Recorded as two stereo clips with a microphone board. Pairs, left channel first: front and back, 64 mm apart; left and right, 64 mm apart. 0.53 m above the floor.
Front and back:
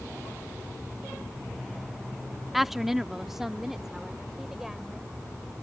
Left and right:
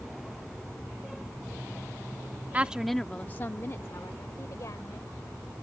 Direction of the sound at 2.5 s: 95° right.